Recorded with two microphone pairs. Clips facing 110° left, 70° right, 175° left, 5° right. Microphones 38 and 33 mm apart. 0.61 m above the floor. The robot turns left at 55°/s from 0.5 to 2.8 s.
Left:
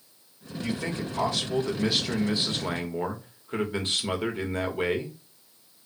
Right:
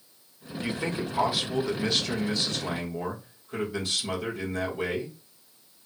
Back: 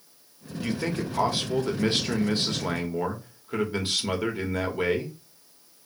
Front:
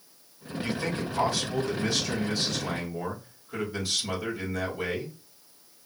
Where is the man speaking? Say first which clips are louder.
Right 1 dB, back 2 dB; 100° right, 1.1 m; by 5.2 s 140° left, 1.1 m.